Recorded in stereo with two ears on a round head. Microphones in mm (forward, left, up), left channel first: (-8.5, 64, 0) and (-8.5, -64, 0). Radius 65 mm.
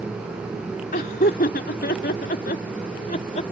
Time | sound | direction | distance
0.9 | laughter | 60° left (ahead or behind) | ?